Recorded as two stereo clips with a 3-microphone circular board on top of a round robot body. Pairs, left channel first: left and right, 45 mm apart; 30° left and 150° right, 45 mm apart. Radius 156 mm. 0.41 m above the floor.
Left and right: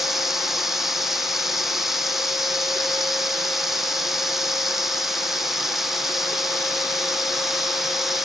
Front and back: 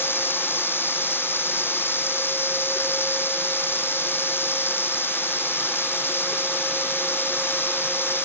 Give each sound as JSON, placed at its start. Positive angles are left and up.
{"t": 0.0, "sound": "running water", "azimuth_deg": -10}